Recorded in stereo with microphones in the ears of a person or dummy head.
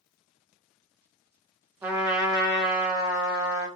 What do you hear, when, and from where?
1.8 s a trumpet: 10° right (ahead or behind), 0.9 m